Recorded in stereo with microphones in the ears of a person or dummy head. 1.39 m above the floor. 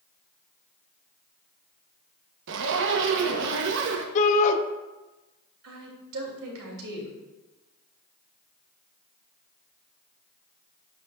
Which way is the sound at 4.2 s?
40° left (ahead or behind).